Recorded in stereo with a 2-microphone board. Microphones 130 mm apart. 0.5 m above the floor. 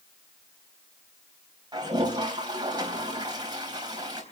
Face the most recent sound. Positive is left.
turn(degrees=-35)  # may be behind; listen again after turning